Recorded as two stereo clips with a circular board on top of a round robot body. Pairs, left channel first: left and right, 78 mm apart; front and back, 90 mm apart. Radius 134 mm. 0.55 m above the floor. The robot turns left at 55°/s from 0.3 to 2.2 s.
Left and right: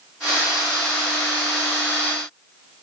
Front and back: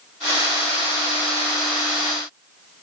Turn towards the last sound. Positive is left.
No sound to turn to.